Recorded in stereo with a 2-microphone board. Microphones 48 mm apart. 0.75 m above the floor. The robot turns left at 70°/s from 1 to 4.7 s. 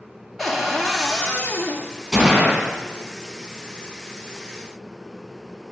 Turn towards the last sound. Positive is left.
turn(degrees=5)